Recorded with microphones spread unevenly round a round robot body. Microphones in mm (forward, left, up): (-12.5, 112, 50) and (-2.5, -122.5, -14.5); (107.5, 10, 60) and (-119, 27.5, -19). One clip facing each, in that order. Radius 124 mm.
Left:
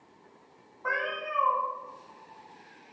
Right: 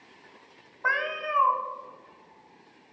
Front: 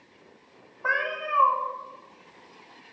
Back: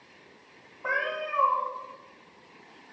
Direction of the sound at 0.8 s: 70° right.